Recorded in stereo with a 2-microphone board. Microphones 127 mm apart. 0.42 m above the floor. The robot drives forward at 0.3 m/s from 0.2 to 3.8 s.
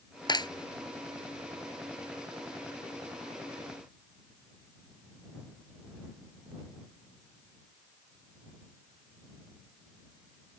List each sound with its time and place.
0.3 s a clap: 35° left (ahead or behind)